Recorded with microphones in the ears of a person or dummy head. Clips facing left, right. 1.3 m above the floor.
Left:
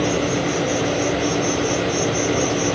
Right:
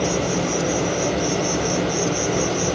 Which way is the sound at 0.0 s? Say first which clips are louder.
Left 2 dB; 65° right (ahead or behind).